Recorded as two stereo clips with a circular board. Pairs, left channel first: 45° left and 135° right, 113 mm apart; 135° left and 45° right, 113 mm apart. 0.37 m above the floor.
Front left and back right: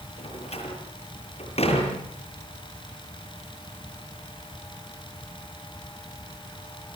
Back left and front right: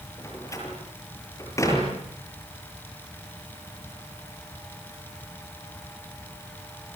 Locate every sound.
0.2 s a door slam: 70° left, 8 m